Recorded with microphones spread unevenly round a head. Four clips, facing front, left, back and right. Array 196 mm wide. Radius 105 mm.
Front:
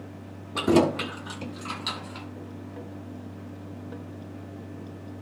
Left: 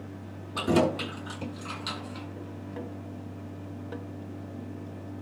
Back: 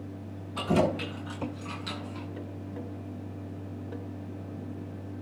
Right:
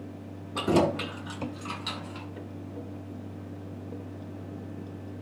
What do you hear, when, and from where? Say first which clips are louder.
0.6 s keys jangling: even, front 5 dB; 5° right, 7 m; by 2.3 s straight ahead, 5.5 m